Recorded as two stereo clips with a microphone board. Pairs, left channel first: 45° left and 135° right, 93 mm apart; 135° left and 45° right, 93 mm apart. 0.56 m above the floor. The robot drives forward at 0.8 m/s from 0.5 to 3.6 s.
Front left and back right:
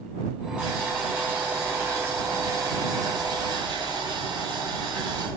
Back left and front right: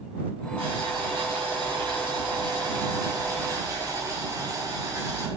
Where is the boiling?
55° right, 3.5 m; by 5.3 s 95° right, 3 m.